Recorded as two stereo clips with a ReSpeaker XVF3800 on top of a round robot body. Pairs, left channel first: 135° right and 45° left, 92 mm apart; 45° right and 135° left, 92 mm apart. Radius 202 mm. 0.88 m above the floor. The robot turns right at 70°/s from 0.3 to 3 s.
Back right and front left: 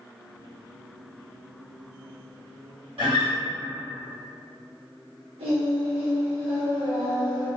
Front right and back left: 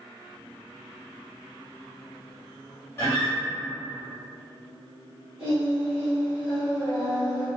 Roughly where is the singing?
Ahead left.